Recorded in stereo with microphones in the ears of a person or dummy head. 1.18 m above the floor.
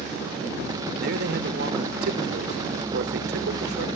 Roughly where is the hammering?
No hammering in this recording.